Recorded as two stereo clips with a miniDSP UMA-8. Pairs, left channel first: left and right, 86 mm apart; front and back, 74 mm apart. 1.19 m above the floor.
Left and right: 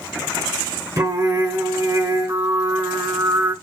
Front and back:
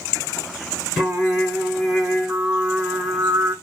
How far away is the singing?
About 1.1 m.